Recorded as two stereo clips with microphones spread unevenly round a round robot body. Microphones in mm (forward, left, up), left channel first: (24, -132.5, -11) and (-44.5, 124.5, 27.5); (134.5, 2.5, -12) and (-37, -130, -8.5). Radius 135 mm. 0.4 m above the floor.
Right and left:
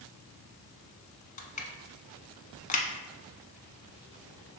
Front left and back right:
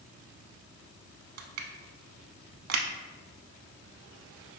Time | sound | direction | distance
1.4 | crushing | 140° right | 0.6 m